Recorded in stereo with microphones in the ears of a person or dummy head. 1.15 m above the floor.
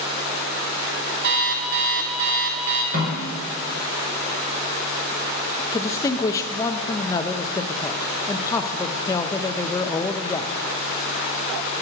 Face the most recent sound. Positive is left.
turn(degrees=15)  # may be behind; listen again after turning